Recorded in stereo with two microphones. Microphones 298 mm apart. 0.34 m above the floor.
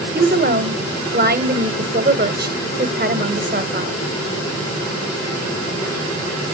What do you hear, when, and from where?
0.1 s a woman speaking: 30° right (ahead or behind), 1.0 m